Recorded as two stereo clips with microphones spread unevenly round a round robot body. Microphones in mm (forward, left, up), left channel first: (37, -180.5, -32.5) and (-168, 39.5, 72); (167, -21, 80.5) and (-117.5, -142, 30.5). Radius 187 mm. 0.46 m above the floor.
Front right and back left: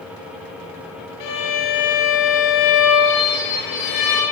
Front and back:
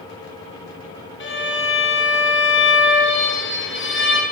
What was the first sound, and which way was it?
A violin, 35° right.